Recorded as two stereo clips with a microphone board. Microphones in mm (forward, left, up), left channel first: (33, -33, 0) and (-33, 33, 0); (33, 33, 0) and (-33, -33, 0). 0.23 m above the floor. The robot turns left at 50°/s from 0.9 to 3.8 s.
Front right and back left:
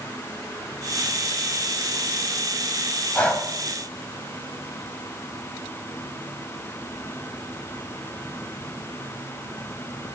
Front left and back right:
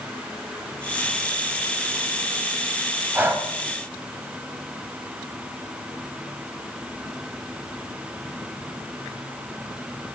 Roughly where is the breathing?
Right.